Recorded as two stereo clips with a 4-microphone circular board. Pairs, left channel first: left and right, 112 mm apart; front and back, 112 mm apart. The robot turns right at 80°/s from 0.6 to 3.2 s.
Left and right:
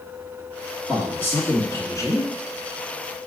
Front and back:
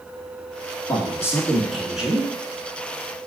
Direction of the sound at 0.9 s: 15° left.